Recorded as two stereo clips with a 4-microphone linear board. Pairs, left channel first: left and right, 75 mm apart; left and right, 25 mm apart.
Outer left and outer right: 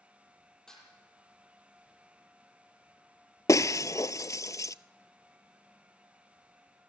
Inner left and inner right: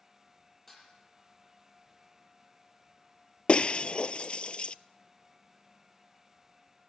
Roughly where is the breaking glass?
Left.